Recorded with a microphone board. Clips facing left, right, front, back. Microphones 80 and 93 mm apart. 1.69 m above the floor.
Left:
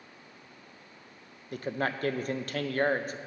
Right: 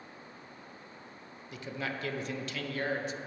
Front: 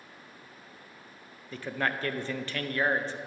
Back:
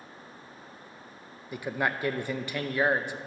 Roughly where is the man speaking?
Left.